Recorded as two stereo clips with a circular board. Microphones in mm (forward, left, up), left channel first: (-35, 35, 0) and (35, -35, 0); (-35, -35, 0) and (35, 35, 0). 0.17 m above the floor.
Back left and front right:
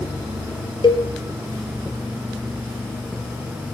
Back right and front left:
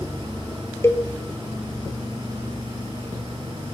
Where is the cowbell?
165° left, 1.8 m.